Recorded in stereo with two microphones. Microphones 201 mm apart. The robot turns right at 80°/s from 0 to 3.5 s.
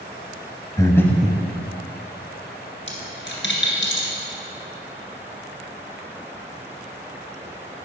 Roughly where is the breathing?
Behind left.